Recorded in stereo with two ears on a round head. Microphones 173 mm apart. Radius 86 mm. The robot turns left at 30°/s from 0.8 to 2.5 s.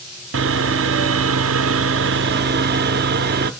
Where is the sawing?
75° right, 0.6 m; by 3.5 s 125° right, 0.6 m.